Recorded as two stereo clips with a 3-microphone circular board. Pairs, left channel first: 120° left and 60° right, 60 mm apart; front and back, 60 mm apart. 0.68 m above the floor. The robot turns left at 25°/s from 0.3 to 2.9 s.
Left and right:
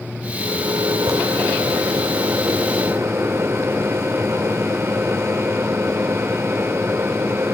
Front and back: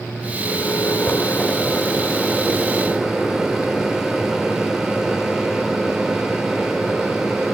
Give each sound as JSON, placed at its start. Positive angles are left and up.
{"t": 0.4, "sound": "a microwave", "azimuth_deg": -40, "distance_m": 1.8}